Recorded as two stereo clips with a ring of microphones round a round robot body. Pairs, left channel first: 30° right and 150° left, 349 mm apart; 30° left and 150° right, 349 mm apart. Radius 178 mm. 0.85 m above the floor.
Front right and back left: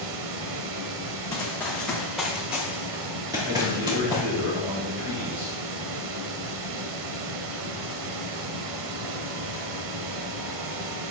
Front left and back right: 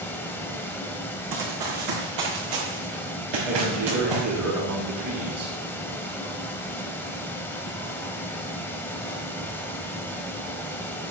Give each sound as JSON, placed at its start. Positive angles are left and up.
{"t": 0.0, "sound": "running water", "azimuth_deg": 115, "distance_m": 1.1}
{"t": 1.3, "sound": "running footsteps", "azimuth_deg": -110, "distance_m": 3.0}
{"t": 3.5, "sound": "a man speaking", "azimuth_deg": -150, "distance_m": 6.0}